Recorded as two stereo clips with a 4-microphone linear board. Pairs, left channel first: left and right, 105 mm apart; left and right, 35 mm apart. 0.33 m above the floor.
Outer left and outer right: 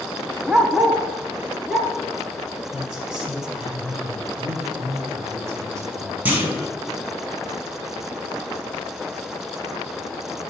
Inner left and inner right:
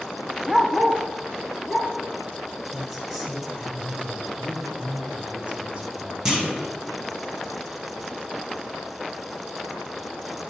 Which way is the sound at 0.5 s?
10° right (ahead or behind).